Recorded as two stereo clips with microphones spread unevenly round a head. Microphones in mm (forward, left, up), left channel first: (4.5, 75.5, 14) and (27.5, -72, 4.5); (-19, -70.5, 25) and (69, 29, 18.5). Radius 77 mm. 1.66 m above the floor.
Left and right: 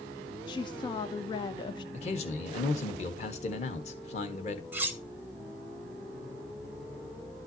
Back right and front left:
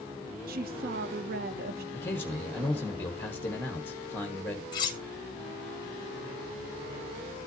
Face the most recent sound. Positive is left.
turn(degrees=-155)